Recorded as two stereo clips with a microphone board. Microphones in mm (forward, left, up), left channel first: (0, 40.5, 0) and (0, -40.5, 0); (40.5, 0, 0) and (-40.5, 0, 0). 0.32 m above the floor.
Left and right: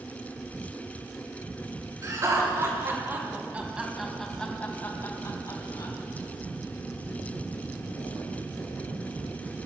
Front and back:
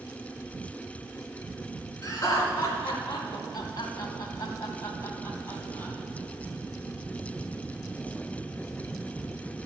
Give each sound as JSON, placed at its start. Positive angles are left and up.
{"t": 2.0, "sound": "laughter", "azimuth_deg": -50, "distance_m": 3.0}